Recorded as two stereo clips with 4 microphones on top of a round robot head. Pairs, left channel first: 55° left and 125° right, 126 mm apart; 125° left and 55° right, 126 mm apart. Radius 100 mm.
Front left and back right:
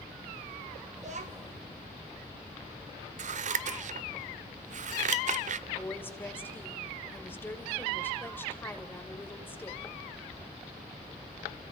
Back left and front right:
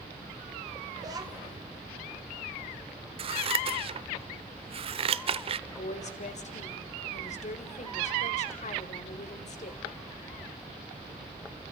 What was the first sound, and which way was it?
A child speaking, 115° right.